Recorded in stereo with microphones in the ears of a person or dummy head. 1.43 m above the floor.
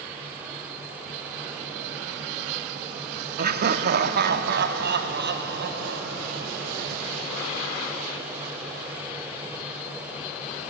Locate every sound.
3.4 s laughter: 55° right (ahead or behind), 1.1 m; by 6.7 s 60° right (ahead or behind), 3.5 m